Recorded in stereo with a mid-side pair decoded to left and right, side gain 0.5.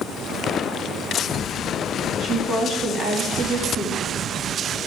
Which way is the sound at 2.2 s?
45° right.